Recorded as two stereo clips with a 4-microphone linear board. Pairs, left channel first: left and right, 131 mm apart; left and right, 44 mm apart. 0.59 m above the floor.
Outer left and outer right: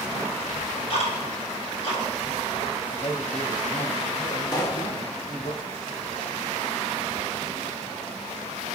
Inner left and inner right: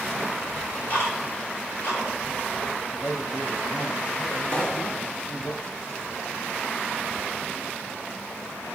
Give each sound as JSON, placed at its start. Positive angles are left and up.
{"t": 0.5, "sound": "ticking", "side_deg": 55, "distance_m": 3.5}
{"t": 2.9, "sound": "a man speaking", "side_deg": 75, "distance_m": 2.5}
{"t": 4.5, "sound": "a pop", "side_deg": 30, "distance_m": 1.7}